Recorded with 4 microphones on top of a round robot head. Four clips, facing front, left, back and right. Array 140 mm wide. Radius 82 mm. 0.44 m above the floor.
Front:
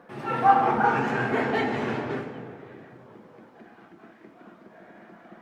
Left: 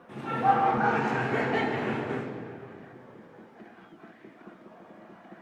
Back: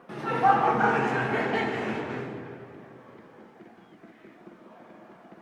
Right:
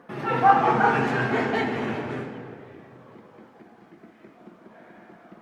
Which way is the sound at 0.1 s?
110° right.